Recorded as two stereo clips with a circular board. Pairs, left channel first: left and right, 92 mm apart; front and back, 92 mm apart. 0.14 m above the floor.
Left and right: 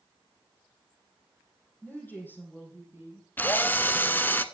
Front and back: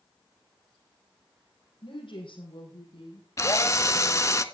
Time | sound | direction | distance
1.8 | a woman speaking | 20° left | 4.5 m
3.4 | a drill | 35° left | 0.6 m